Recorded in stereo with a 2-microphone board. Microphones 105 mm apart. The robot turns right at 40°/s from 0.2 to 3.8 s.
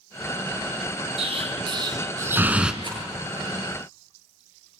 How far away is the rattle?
About 8.5 m.